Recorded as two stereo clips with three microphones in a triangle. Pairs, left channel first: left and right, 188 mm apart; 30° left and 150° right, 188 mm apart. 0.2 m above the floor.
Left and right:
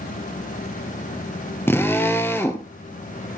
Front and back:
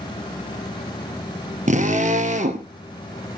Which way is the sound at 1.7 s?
165° left.